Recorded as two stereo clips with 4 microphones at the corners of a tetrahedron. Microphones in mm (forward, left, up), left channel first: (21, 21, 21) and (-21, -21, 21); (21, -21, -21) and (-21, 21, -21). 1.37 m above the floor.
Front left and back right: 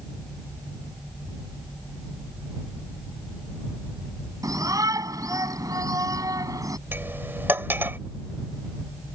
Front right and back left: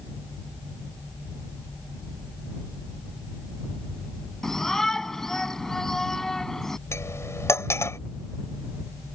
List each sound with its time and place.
4.4 s a shout: 125° right
6.9 s cutlery clinking: 85° right